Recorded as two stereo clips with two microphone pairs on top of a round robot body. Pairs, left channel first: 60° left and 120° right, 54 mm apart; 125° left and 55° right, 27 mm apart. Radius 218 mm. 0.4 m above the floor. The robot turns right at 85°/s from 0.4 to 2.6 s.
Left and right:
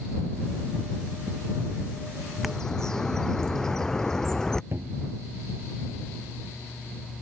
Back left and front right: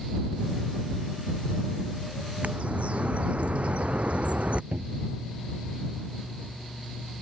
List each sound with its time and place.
2.4 s a bird: 35° right; by 4.6 s 20° right
4.7 s a cupboard door: 75° right